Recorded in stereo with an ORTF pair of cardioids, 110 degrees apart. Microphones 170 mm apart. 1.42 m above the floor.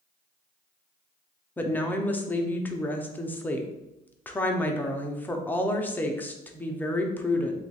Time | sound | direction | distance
1.6 | a woman speaking | 10° left | 0.6 m